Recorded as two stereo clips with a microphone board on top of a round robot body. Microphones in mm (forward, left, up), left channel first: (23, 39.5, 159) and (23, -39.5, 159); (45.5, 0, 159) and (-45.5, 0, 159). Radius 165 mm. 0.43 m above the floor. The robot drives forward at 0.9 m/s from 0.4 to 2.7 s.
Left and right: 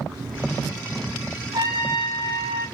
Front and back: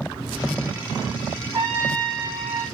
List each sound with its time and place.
1.5 s a trumpet: 115° right, 6.5 m; by 2.6 s 120° right, 6.5 m